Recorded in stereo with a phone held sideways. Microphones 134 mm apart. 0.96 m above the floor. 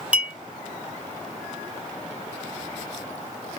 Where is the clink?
10° right (ahead or behind), 1.1 m.